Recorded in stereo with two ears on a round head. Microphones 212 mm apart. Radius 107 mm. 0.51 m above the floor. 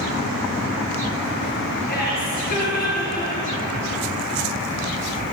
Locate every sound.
1.9 s laughter: 40° left (ahead or behind), 10 m